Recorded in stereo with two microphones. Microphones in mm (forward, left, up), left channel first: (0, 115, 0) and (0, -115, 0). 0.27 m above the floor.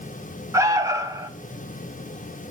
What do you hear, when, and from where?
0.5 s an alarm: 15° right (ahead or behind), 0.8 m